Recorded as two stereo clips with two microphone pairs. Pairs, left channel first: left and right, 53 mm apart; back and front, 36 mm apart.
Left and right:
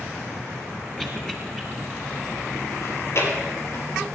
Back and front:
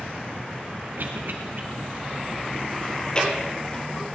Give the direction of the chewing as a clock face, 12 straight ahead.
8 o'clock.